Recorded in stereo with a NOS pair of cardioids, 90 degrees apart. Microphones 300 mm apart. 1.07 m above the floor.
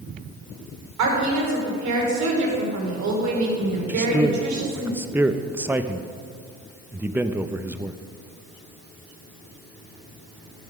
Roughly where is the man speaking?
Ahead.